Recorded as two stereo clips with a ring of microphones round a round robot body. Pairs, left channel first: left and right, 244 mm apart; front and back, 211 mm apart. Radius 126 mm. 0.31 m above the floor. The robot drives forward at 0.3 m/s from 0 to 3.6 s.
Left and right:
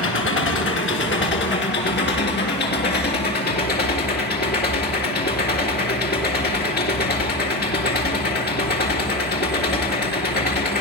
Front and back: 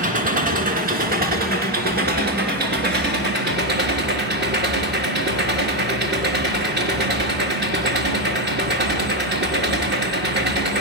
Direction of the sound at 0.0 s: 130° left.